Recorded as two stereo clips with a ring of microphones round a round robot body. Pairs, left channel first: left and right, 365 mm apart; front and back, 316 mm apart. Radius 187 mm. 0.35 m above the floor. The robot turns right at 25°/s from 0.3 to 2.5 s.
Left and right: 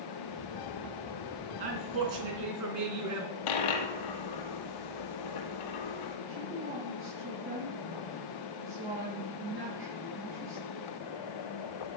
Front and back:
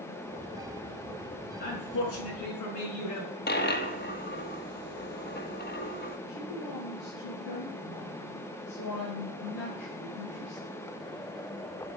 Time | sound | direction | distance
1.6 | a man speaking | 65° right | 3.5 m
3.5 | a dropped coin | 60° left | 2.5 m
6.3 | a woman speaking | 30° right | 6.5 m